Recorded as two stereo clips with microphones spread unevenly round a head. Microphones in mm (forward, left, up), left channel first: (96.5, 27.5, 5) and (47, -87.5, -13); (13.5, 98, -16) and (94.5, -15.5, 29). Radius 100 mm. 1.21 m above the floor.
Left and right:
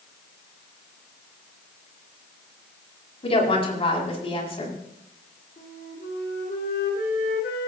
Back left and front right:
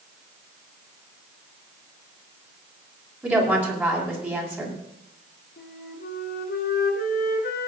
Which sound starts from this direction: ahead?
A woman speaking, at 3.2 s.